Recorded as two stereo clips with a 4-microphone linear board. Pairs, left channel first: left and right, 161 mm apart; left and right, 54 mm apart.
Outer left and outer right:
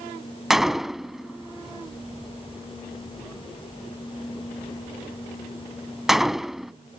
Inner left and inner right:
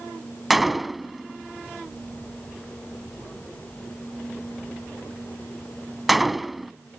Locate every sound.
0.5 s a gunshot: centre (ahead or behind)